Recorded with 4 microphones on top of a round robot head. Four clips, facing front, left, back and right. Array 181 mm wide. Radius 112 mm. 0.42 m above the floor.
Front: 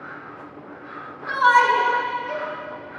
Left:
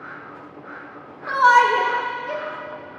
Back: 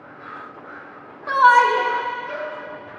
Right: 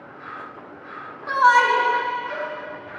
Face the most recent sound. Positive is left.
turn(degrees=85)